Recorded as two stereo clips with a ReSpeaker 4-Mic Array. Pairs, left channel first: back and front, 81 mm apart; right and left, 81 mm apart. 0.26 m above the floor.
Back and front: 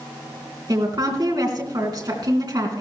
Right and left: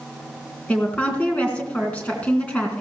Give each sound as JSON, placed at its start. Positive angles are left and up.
{"t": 0.7, "sound": "a woman speaking", "azimuth_deg": -20, "distance_m": 3.5}